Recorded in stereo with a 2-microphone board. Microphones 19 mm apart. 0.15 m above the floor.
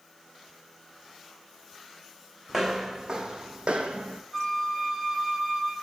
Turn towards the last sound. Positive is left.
turn(degrees=0)  # may be behind; listen again after turning